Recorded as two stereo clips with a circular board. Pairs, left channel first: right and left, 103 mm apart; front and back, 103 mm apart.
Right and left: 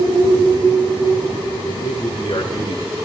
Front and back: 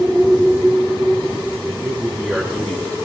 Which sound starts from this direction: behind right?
A man speaking, at 1.6 s.